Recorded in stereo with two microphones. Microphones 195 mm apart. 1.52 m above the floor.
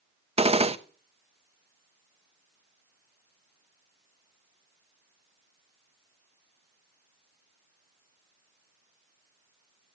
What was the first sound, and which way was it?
A gunshot, 30° right (ahead or behind).